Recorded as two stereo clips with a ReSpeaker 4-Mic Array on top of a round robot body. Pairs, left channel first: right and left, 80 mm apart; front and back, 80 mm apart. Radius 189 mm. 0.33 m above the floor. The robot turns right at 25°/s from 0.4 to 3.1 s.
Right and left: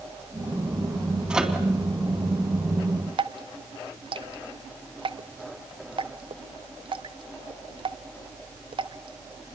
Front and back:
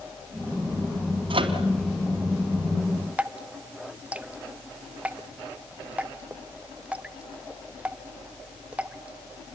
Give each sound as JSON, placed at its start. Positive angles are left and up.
{"t": 1.3, "sound": "a microwave", "azimuth_deg": 170, "distance_m": 3.5}
{"t": 3.2, "sound": "dripping", "azimuth_deg": 105, "distance_m": 0.9}